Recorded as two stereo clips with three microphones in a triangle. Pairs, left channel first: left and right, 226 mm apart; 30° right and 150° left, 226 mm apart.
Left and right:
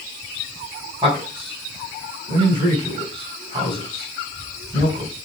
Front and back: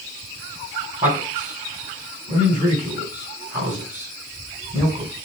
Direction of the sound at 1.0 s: 155° right.